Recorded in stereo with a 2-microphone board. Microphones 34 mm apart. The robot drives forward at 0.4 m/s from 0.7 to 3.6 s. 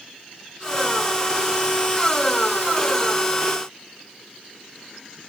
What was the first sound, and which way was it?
Only background noise.